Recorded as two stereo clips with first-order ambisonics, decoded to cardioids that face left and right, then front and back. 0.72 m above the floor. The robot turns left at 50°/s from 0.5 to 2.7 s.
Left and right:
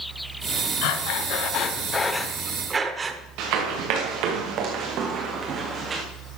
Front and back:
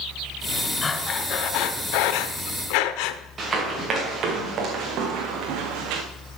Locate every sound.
0.8 s breathing: 75° left, 1.0 m; by 3.2 s 20° right, 1.0 m
3.4 s running footsteps: 110° right, 3.5 m; by 6.0 s 160° right, 2.5 m